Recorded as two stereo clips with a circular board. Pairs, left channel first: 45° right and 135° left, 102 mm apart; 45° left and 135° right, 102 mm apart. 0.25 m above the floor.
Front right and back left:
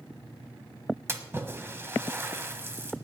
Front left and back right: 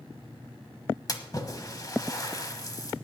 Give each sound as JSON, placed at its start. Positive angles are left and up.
{"t": 1.1, "sound": "a splash", "azimuth_deg": 80, "distance_m": 1.1}